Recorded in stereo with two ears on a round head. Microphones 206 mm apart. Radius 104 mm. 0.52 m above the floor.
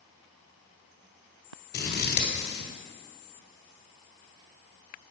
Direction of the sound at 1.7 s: 45° left (ahead or behind).